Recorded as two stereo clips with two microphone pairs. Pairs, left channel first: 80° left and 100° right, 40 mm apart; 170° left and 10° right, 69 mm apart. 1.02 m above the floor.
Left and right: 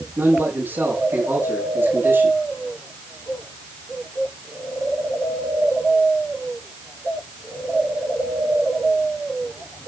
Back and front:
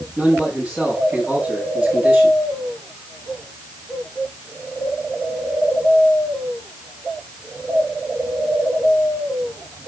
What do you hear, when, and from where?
0.2 s a man speaking: 85° right, 9 m